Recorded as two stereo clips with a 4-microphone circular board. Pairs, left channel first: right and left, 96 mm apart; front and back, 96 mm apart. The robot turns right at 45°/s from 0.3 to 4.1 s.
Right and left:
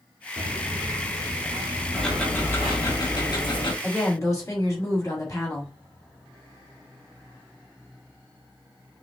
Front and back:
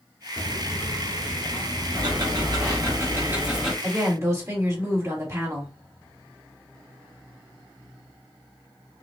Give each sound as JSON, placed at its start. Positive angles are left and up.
{"t": 0.4, "sound": "footsteps", "azimuth_deg": 35, "distance_m": 1.6}
{"t": 1.9, "sound": "ticking", "azimuth_deg": -175, "distance_m": 1.4}
{"t": 3.8, "sound": "a woman speaking", "azimuth_deg": -150, "distance_m": 1.9}